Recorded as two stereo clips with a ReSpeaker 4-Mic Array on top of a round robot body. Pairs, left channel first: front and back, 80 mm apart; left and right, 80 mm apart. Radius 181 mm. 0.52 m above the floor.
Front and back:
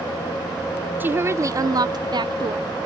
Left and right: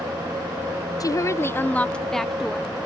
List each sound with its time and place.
1.0 s a woman speaking: 120° left; by 2.7 s 170° right